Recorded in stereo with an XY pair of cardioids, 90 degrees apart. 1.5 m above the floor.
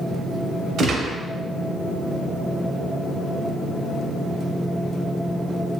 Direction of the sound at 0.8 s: 70° right.